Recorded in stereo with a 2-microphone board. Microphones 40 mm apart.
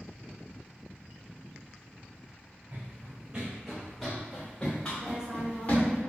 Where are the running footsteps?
45° right (ahead or behind), 0.9 m; by 6.0 s 35° left (ahead or behind), 1.7 m.